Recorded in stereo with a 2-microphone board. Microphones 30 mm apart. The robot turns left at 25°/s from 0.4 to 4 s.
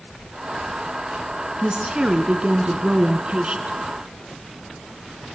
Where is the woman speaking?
45° right, 1.4 m; by 3.8 s 100° right, 1.4 m.